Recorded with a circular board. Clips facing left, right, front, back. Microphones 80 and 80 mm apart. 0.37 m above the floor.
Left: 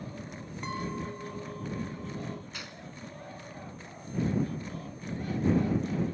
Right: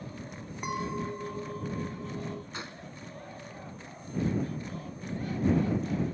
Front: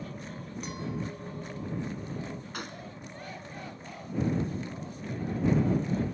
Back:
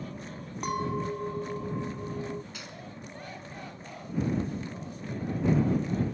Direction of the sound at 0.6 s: 160° right.